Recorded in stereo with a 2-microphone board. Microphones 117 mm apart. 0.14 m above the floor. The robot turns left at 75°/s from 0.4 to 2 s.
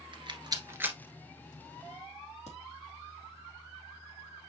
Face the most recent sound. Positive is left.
turn(degrees=70)  # may be behind; listen again after turning